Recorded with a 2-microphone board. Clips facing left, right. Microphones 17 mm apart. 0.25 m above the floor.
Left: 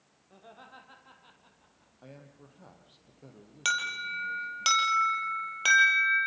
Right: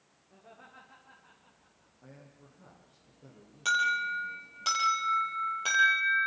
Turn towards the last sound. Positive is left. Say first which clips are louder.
# right 3 dB
turn(degrees=40)  # may be behind; listen again after turning